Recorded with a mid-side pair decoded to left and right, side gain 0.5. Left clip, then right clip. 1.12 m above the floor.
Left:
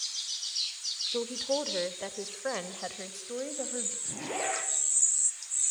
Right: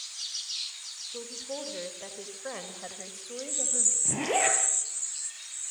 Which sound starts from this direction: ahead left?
A woman speaking, at 1.1 s.